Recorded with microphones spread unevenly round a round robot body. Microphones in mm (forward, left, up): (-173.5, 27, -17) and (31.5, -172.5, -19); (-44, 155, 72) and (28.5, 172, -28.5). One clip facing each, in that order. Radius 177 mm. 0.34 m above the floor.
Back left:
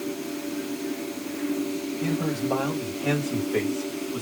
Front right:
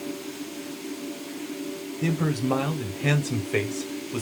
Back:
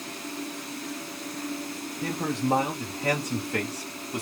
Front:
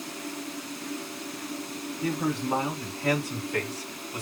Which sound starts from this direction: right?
A man speaking, at 2.0 s.